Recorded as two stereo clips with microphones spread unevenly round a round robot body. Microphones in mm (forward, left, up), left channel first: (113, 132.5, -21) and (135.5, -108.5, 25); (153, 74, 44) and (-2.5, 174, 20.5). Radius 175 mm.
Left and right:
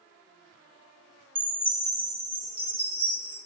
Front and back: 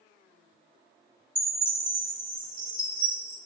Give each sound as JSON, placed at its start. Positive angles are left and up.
{"t": 1.4, "sound": "a chime", "azimuth_deg": -140, "distance_m": 1.2}